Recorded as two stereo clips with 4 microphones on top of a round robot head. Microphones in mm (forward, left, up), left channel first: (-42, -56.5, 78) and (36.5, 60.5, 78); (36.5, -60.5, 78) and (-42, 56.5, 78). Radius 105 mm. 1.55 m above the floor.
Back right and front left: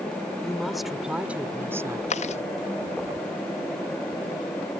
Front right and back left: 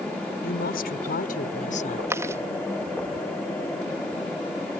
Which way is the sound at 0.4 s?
35° right.